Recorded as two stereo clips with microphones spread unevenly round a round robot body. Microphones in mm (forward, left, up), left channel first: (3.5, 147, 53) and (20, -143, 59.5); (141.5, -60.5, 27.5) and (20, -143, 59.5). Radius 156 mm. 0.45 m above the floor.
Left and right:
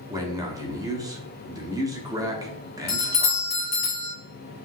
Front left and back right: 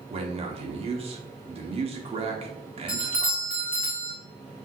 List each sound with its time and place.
0.1 s a man speaking: 155° right, 0.9 m
2.9 s a doorbell: 110° left, 1.8 m